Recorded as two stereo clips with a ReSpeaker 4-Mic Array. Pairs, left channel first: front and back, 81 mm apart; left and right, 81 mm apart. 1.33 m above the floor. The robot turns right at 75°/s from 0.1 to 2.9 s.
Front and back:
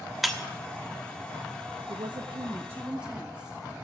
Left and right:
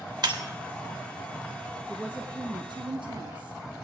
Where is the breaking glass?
95° right, 1.3 m; by 0.4 s 80° right, 1.3 m.